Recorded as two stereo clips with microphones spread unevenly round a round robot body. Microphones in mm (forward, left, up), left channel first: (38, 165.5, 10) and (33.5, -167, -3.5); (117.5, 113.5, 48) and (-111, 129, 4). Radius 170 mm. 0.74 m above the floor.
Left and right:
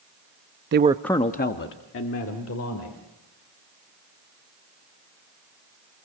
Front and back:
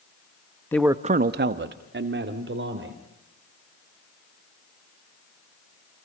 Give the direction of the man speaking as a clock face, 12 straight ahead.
3 o'clock.